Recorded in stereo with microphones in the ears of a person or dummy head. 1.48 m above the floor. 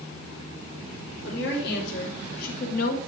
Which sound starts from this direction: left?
A woman speaking, at 1.2 s.